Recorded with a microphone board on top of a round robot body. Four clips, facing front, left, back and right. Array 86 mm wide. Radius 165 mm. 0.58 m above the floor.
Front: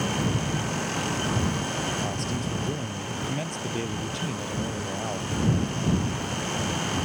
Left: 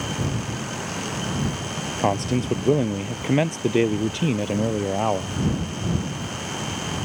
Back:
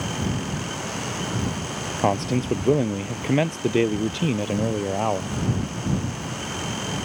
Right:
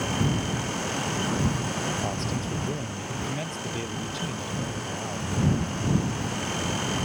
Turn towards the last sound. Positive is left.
turn(degrees=125)